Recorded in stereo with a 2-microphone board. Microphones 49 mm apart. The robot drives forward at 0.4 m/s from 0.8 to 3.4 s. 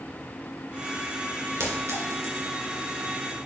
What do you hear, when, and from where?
1.6 s a clink: 70° right (ahead or behind), 1.8 m; by 2.6 s 80° right, 1.7 m